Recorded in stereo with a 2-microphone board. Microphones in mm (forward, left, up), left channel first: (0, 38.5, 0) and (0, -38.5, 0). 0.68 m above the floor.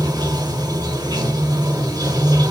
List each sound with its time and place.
0.0 s running water: 60° right (ahead or behind), 0.9 m